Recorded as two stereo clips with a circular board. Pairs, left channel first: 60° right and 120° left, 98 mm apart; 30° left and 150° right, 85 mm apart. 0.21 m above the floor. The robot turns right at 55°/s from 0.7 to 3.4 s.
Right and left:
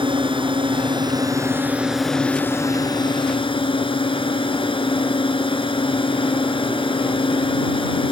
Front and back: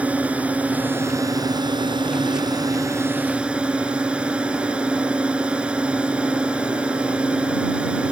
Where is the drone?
135° left; by 8.1 s 75° right.